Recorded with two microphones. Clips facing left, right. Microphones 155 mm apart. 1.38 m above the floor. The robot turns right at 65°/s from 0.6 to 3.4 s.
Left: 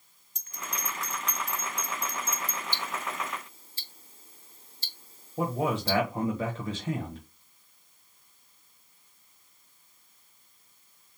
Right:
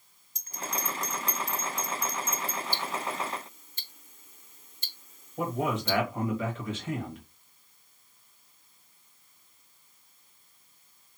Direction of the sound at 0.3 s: 35° right (ahead or behind).